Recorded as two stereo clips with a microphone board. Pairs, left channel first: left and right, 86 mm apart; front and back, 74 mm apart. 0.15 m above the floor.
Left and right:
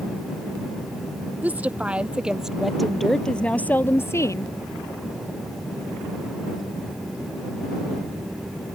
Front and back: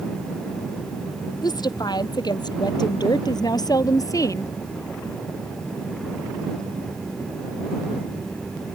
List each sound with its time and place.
1.4 s a woman speaking: 20° right; by 4.5 s 45° left